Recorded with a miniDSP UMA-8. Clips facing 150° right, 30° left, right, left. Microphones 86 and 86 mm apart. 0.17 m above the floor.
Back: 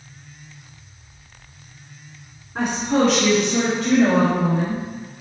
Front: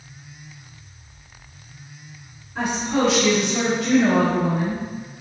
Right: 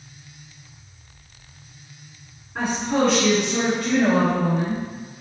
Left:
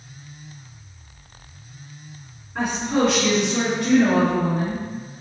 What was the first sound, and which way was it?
A woman speaking, 175° right.